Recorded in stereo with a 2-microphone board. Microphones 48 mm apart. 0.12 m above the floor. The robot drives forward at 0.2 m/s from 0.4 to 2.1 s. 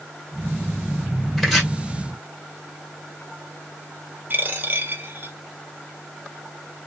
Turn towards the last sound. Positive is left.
turn(degrees=-40)  # may be behind; listen again after turning